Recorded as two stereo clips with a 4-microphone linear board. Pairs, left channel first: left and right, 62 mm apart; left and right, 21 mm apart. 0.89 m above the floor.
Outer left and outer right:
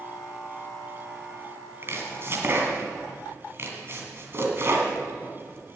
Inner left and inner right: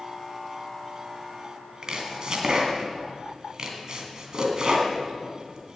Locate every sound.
1.8 s chopping: 40° right (ahead or behind), 2.5 m